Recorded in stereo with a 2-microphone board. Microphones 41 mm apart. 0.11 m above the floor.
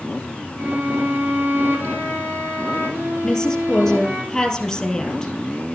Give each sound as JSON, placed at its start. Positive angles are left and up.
{"t": 0.6, "sound": "a violin", "side_deg": -65, "distance_m": 3.0}
{"t": 3.2, "sound": "a woman speaking", "side_deg": 10, "distance_m": 2.5}